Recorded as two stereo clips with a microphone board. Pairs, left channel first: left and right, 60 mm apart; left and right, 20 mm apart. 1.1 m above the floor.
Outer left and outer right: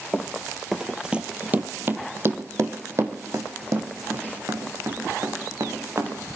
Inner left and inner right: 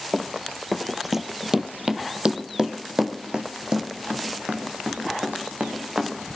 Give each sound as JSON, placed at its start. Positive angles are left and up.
{"t": 0.1, "sound": "running footsteps", "side_deg": 20, "distance_m": 1.1}